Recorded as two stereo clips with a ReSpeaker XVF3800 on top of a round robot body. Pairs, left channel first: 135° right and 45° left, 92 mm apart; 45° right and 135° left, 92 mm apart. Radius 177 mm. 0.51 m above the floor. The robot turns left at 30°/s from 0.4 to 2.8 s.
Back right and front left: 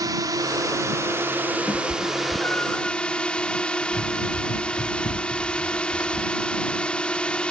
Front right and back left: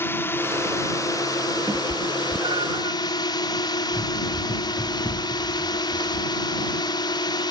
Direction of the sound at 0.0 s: 15° left.